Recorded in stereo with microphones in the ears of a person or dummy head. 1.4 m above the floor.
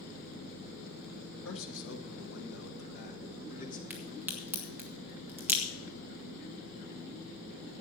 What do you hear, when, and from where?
1.4 s a man speaking: 75° left (ahead or behind), 2 m; by 3.8 s 40° left (ahead or behind), 2.5 m
3.9 s a crack: 5° right (ahead or behind), 1.6 m